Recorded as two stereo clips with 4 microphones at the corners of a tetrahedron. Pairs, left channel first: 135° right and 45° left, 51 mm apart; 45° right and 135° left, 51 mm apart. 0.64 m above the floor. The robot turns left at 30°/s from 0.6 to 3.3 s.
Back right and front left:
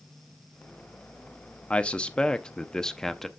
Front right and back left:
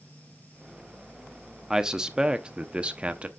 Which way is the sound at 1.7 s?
160° right.